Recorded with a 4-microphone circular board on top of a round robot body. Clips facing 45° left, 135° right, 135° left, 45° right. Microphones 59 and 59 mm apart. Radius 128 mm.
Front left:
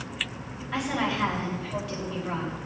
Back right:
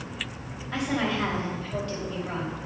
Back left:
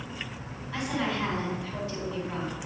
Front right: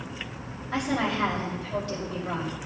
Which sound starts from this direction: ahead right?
A woman speaking, at 0.7 s.